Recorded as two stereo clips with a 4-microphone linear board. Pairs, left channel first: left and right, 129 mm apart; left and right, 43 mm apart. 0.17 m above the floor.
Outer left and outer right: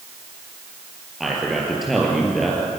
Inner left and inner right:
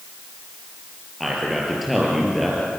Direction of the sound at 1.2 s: Centre (ahead or behind).